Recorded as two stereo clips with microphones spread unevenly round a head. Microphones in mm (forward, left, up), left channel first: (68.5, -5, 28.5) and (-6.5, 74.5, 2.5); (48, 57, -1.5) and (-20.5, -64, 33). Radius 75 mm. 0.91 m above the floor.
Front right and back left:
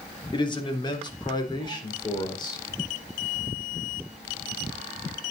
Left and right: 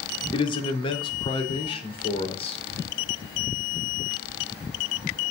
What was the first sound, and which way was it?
A man speaking, 5° left.